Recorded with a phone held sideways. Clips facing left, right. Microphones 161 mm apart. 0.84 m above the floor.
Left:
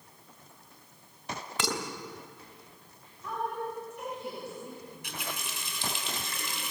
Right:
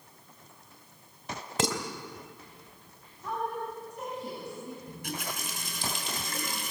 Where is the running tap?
50° right (ahead or behind), 4 m.